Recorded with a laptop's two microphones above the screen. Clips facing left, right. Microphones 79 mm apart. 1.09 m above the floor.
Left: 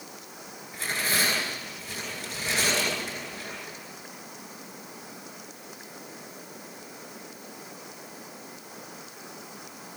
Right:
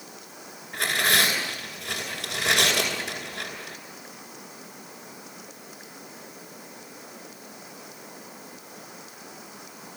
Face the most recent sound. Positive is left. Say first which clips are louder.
# right 5 dB
turn(degrees=-70)  # may be behind; listen again after turning